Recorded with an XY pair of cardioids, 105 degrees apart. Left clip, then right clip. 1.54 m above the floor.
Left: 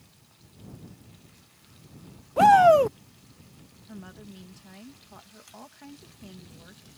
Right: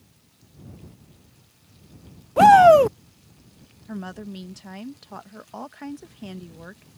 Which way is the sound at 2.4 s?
30° right.